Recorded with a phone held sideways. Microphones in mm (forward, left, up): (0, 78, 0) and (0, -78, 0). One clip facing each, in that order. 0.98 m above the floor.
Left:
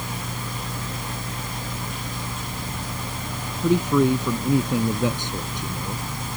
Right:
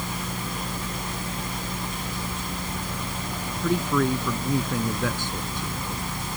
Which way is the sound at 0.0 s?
20° left (ahead or behind).